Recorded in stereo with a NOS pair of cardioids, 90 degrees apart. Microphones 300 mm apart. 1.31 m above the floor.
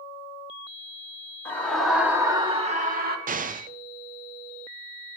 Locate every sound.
1.4 s a scream: 10° left, 3 m; by 3.2 s 35° right, 3 m
3.3 s an explosion: 30° right, 0.7 m